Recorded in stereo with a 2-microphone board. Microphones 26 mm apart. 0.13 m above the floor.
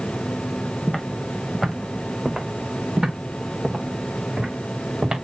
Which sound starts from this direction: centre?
Footsteps, at 0.9 s.